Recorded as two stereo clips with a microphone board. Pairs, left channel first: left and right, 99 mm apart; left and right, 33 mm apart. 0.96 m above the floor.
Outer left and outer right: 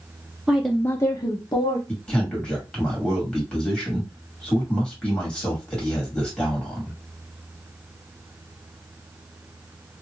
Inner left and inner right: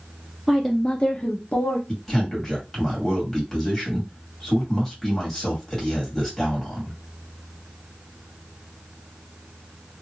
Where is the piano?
No piano in this recording.